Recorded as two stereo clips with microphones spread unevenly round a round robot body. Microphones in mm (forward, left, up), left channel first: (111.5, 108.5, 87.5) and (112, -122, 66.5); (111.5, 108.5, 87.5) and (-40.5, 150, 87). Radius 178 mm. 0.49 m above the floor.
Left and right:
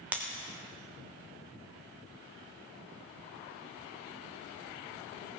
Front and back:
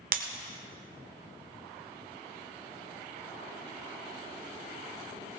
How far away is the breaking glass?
About 1.1 m.